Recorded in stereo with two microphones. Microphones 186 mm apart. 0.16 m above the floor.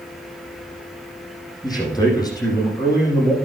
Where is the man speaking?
20° left (ahead or behind), 5.5 m.